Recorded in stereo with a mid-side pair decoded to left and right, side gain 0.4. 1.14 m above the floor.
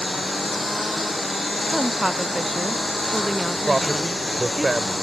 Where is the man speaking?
20° right.